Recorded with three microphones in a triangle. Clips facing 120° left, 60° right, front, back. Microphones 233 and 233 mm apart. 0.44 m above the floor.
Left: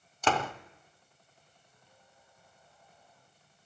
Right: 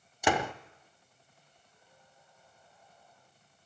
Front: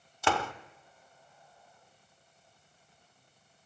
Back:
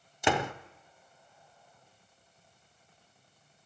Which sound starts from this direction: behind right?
A door slam, at 0.2 s.